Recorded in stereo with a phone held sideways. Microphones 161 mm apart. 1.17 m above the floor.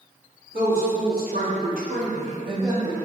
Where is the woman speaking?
75° right (ahead or behind), 1.6 m; by 2.9 s 15° right (ahead or behind), 1.2 m.